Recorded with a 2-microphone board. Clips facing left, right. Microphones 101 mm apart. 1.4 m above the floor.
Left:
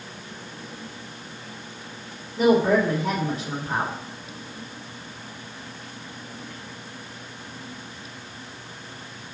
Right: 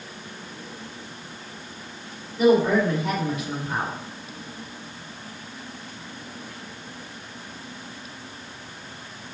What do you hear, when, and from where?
2.4 s a woman speaking: 35° left (ahead or behind), 2.5 m